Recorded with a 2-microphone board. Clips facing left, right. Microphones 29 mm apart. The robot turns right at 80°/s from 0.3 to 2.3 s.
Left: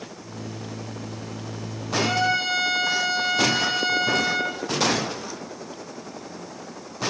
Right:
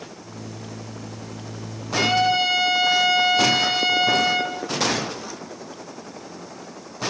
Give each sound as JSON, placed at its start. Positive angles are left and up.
{"t": 1.9, "sound": "a trumpet", "side_deg": -40, "distance_m": 9.5}